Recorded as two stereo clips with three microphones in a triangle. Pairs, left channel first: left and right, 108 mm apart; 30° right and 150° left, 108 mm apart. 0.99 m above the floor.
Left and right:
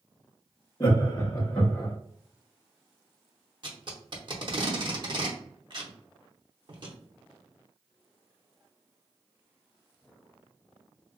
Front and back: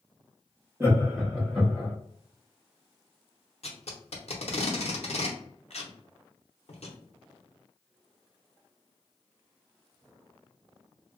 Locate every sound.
0.8 s laughter: 100° left, 0.9 m; by 1.9 s 35° left, 0.9 m
3.6 s tape being pulled: 45° right, 0.7 m